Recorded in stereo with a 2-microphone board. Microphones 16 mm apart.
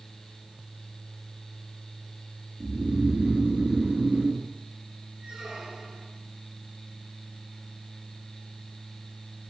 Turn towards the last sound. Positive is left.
turn(degrees=-70)  # may be behind; listen again after turning